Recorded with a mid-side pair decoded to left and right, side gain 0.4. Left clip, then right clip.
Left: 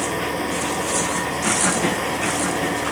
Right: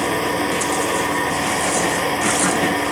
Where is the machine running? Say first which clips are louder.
Right 4 dB; 40° right.